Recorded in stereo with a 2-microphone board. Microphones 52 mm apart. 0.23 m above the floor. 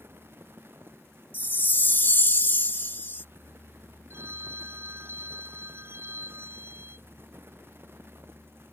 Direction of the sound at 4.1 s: 50° right (ahead or behind).